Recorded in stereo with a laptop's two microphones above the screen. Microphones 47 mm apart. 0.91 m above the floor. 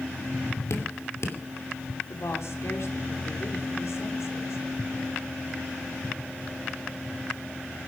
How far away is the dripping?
About 2.5 m.